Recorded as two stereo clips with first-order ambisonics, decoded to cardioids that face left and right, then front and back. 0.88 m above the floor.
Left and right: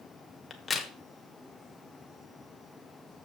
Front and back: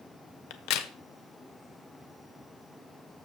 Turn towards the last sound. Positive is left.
turn(degrees=15)